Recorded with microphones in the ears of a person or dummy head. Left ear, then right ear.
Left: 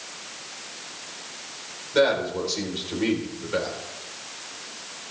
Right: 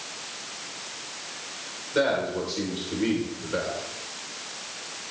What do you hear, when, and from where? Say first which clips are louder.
1.9 s a man speaking: left 3 dB; 20° left (ahead or behind), 4 m